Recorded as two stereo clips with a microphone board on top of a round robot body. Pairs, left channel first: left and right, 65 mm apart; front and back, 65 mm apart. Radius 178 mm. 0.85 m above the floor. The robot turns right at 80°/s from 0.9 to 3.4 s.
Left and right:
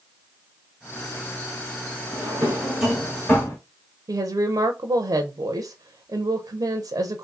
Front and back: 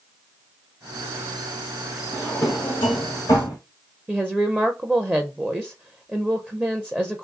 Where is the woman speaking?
105° right, 0.7 m.